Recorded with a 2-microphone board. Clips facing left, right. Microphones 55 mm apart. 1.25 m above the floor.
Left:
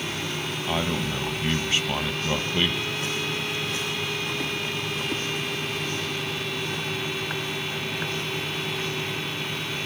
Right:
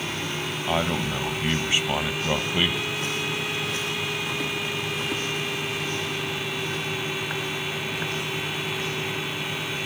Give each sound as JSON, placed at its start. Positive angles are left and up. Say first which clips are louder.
{"t": 0.7, "sound": "a man speaking", "louder": "right 2 dB", "side_deg": -15, "distance_m": 0.9}